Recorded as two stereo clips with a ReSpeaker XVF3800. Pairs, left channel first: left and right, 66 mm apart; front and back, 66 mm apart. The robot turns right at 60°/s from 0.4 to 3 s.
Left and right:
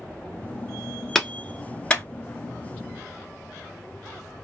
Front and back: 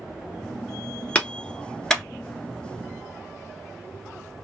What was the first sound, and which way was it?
A clap, 15° left.